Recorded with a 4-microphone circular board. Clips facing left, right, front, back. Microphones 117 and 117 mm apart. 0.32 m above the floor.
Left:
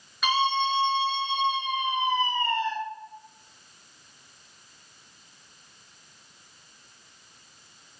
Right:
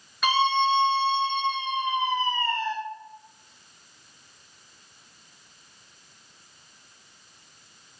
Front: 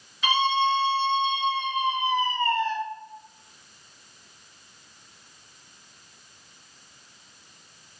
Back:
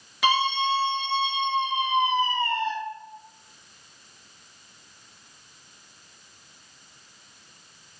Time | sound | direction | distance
0.2 | a scream | straight behind | 5.5 m